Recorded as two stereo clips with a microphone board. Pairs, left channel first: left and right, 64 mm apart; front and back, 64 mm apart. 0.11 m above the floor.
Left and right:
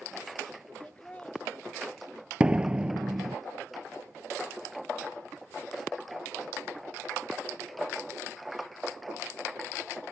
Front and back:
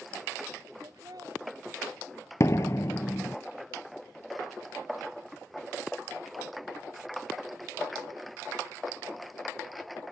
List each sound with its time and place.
0.8 s laughter: 160° left
2.4 s a door slam: 20° right